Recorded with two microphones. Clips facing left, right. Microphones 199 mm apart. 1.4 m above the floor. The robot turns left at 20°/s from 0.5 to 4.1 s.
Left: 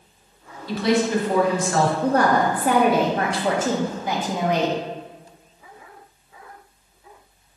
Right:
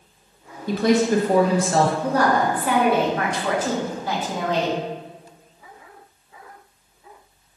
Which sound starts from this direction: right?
A woman speaking, at 0.7 s.